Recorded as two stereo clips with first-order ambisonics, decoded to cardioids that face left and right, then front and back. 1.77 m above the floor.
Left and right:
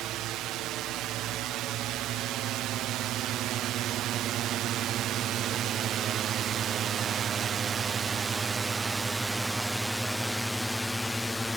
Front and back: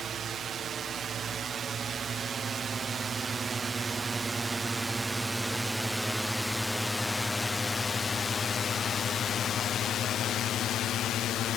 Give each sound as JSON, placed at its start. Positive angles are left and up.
{"t": 0.0, "sound": "a drone", "azimuth_deg": -125}